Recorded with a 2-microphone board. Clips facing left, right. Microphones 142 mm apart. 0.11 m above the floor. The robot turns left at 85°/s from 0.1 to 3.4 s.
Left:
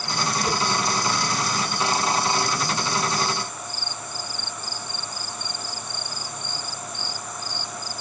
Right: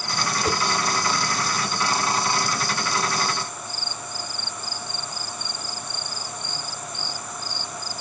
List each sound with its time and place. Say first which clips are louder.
0.4 s a whoosh: right 3 dB; 80° right, 4 m